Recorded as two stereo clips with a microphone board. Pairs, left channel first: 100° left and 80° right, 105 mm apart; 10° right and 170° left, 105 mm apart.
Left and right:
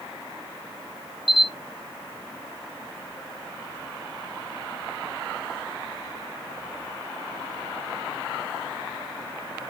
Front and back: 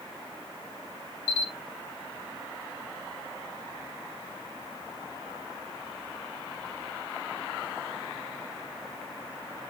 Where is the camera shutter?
65° right, 2.5 m.